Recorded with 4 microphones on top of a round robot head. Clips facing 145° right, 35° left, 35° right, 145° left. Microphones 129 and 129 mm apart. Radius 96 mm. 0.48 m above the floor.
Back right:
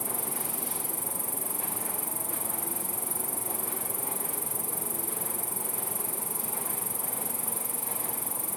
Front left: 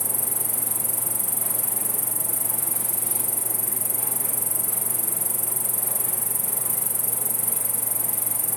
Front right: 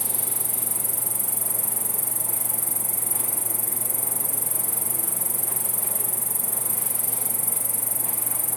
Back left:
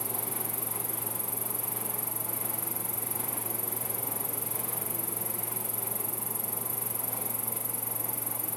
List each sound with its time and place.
0.0 s an insect: 10° left